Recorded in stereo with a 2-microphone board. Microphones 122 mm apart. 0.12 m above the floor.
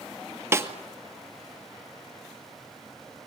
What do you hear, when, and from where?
0.5 s a snare drum: 20° right (ahead or behind), 1.6 m